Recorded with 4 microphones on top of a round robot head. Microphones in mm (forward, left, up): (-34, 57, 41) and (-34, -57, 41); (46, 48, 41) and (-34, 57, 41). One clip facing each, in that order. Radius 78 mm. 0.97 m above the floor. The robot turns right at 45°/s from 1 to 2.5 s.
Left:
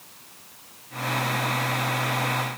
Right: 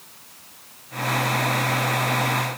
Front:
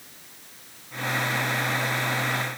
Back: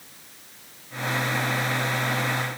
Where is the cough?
I don't hear a cough.